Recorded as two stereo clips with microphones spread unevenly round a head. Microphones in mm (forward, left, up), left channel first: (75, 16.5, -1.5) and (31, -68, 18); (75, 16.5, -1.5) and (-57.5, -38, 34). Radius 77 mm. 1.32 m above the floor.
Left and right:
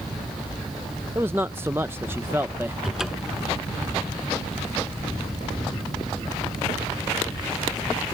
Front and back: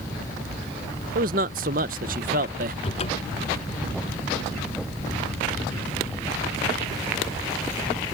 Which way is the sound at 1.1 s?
170° left.